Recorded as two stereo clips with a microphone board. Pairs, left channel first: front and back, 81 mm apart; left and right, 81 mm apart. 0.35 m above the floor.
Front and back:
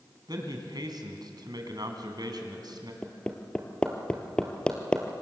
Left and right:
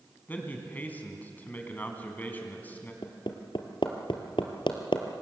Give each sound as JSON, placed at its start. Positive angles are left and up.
{"t": 0.3, "sound": "a man speaking", "azimuth_deg": 160, "distance_m": 3.5}
{"t": 3.0, "sound": "hammering", "azimuth_deg": 80, "distance_m": 1.9}